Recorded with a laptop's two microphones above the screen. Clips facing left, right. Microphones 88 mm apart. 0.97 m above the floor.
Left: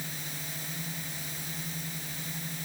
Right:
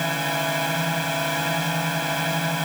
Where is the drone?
75° right (ahead or behind).